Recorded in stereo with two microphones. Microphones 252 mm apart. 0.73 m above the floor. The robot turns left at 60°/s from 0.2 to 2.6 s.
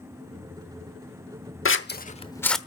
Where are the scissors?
55° left (ahead or behind), 0.9 m; by 2.6 s centre (ahead or behind), 0.9 m.